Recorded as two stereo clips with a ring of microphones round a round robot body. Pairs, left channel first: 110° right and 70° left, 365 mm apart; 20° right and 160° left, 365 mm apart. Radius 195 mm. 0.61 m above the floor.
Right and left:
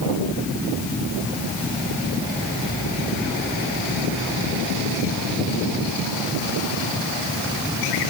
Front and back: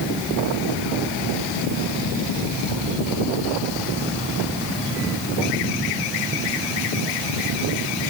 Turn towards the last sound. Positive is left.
No sound to turn to.